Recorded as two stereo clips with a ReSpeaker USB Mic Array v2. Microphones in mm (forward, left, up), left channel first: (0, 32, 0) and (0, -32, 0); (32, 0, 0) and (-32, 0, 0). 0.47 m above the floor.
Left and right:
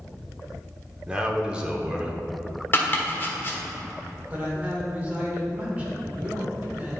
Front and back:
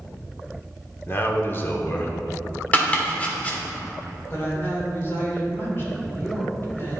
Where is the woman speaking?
30° right, 1.6 m.